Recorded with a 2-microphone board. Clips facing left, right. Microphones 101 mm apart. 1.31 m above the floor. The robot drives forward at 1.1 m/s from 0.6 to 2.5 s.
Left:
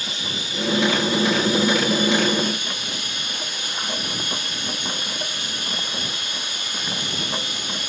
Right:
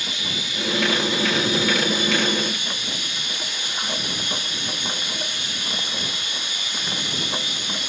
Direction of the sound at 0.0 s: 35° left (ahead or behind).